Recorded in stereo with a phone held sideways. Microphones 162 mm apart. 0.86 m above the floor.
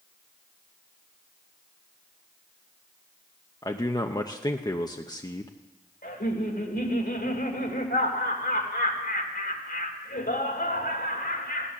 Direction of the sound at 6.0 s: 80° left.